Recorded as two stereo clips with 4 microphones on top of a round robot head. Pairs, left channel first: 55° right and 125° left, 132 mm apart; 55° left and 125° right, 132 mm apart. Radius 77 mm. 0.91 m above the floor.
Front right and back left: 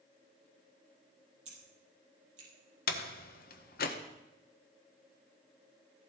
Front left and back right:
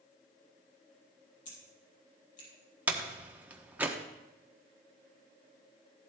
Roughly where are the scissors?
Left.